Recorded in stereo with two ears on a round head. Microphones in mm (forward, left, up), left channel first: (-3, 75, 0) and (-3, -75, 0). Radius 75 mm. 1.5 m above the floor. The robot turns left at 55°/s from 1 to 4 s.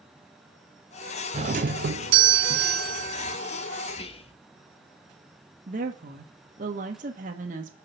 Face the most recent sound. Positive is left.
turn(degrees=-50)  # may be behind; listen again after turning